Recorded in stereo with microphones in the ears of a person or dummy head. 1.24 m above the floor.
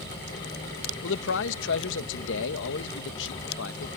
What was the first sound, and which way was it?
A man speaking, 65° left (ahead or behind).